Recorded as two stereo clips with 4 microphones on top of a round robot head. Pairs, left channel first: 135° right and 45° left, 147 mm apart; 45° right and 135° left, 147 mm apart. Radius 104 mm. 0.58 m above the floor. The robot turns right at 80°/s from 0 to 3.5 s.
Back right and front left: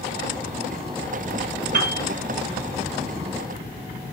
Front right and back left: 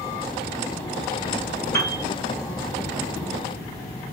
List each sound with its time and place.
1.7 s a piano: 25° left, 1.2 m; by 2.0 s 50° left, 1.2 m